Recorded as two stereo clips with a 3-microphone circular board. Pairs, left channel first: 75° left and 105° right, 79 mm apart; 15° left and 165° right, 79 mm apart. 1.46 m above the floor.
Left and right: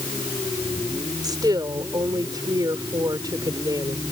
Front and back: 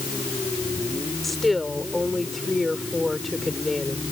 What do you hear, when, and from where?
1.2 s a woman speaking: 75° right